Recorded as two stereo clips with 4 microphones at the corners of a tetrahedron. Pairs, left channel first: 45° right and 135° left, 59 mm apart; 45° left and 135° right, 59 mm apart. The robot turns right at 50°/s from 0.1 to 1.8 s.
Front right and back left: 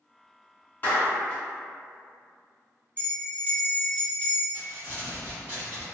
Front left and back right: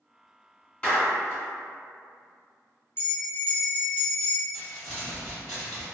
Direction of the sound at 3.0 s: 85° left.